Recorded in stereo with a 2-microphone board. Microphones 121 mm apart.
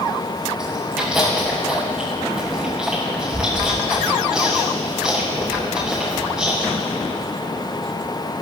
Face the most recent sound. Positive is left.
turn(degrees=-5)  # may be behind; listen again after turning